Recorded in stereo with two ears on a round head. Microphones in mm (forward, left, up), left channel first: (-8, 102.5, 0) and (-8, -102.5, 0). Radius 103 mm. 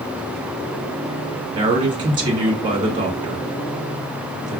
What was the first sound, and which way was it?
A man speaking, 20° right (ahead or behind).